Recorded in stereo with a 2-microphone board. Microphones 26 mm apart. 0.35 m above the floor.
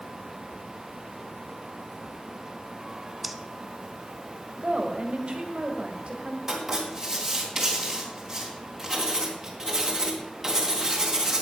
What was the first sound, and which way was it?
Breathing, centre (ahead or behind).